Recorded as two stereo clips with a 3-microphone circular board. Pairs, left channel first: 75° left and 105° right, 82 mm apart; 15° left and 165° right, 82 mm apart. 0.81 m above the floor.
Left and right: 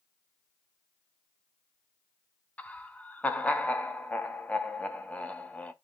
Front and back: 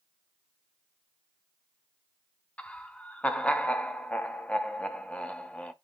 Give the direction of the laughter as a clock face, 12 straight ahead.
10 o'clock.